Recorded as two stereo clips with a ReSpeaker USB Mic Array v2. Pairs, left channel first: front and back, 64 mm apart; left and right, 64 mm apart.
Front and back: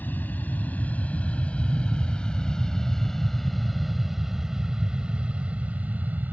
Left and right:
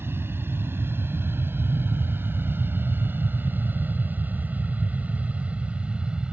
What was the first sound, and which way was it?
An aircraft, 50° right.